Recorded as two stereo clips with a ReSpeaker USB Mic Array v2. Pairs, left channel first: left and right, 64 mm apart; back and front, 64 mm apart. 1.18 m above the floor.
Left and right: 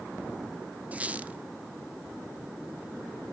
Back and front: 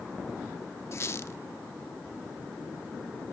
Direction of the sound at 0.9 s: 150° right.